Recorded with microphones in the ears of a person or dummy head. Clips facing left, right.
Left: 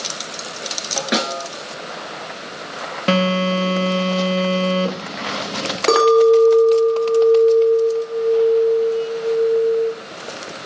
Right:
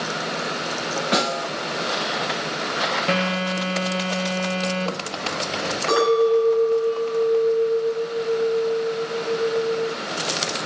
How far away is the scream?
No scream in this recording.